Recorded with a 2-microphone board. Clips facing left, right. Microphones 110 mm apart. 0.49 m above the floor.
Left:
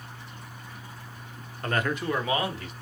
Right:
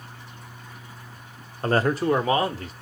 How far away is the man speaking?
About 0.8 m.